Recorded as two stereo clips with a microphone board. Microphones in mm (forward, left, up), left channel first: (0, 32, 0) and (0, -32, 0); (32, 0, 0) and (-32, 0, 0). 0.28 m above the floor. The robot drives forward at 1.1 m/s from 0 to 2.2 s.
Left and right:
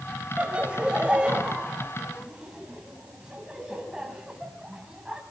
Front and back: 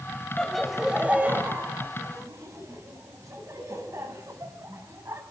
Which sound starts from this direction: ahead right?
Laughter, at 0.4 s.